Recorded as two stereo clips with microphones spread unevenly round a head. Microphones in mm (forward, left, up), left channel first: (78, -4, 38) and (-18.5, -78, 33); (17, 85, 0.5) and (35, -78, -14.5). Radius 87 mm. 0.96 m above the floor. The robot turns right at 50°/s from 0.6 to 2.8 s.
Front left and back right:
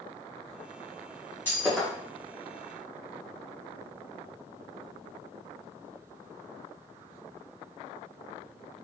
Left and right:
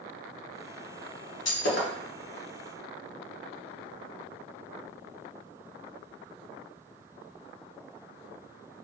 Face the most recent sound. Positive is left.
turn(degrees=180)